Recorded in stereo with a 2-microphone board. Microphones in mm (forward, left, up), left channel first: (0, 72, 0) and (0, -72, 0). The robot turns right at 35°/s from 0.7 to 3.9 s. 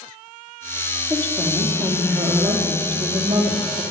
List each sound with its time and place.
1.1 s a woman speaking: 160° left, 4 m; by 3.8 s 105° right, 4 m